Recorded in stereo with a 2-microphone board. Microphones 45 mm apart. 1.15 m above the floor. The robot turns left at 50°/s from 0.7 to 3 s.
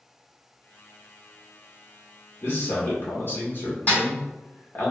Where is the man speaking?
55° left (ahead or behind), 1.1 m; by 4.9 s 45° left (ahead or behind), 1.1 m.